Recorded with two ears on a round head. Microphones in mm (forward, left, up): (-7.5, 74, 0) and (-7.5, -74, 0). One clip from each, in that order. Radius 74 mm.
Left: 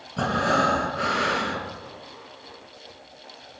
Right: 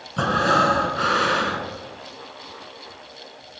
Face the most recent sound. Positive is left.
turn(degrees=-30)  # may be behind; listen again after turning